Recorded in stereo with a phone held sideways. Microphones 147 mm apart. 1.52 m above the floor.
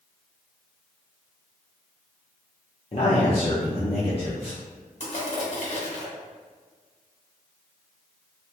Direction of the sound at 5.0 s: 50° left (ahead or behind).